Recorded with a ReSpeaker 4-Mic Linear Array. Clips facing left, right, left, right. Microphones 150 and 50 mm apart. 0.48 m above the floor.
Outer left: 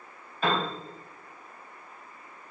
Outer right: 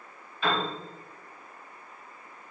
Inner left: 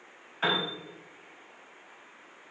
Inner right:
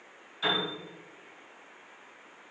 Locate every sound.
0.4 s a piano: 45° left (ahead or behind), 3.5 m